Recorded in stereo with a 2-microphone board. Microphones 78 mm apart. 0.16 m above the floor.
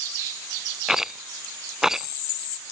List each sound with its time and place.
0.9 s a rattle: 5° right (ahead or behind)